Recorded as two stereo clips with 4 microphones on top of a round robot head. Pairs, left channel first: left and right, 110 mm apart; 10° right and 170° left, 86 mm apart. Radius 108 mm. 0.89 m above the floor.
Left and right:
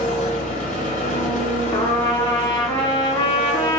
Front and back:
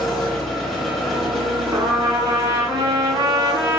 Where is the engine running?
75° left, 1.9 m.